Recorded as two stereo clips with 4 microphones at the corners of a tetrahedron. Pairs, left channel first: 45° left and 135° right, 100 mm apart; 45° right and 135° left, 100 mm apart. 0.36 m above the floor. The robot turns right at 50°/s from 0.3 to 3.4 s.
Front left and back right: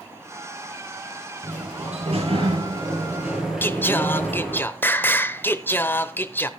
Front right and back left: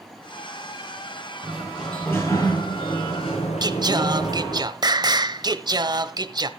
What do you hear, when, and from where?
1.4 s a sliding door: 145° right, 6.5 m; by 4.6 s 50° right, 6.5 m
3.6 s singing: 110° left, 0.9 m